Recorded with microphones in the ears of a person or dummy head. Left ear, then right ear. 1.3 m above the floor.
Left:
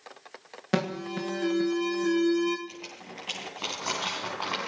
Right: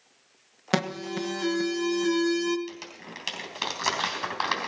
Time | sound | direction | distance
0.7 | an alarm | 25° right (ahead or behind) | 1.4 m
2.7 | crumpling | 70° right (ahead or behind) | 3.5 m